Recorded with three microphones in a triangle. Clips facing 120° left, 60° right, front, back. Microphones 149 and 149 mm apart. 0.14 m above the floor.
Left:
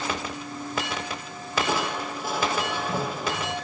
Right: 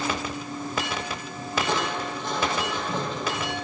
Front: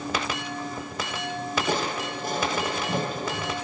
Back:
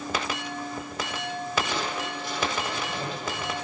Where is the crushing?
40° left, 5.5 m.